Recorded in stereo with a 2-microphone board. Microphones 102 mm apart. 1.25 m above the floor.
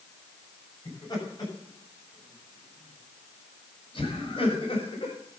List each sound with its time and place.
0.8 s laughter: 40° left (ahead or behind), 7.5 m; by 5.2 s 65° left (ahead or behind), 6 m